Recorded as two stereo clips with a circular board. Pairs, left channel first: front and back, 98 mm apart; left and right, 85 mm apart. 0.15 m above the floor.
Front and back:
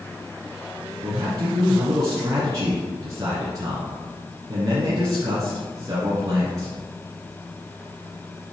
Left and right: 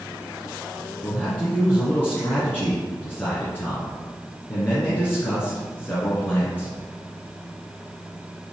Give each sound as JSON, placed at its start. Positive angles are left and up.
{"t": 1.0, "sound": "a man speaking", "azimuth_deg": 150, "distance_m": 1.8}